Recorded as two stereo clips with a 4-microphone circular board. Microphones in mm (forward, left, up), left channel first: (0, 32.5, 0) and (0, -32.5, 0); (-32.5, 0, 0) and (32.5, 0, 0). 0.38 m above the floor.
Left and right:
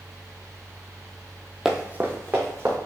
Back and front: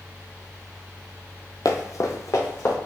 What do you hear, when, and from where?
1.6 s running footsteps: 175° right, 0.7 m; by 2.8 s 135° right, 2 m